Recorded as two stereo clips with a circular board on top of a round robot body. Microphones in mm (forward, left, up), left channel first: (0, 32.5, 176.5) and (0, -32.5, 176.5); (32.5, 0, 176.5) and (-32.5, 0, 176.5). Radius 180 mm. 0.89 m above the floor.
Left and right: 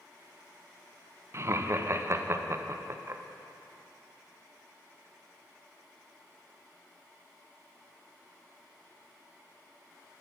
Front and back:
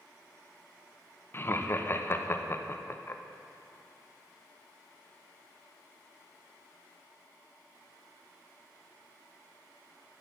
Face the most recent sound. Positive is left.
turn(degrees=-50)